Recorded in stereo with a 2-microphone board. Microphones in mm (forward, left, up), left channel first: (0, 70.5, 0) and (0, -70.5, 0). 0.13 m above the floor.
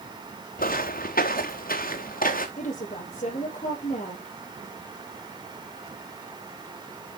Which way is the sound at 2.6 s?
55° left (ahead or behind).